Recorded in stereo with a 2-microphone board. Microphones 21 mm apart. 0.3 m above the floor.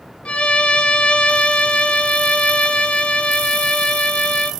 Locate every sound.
0.2 s a violin: 80° left, 1.0 m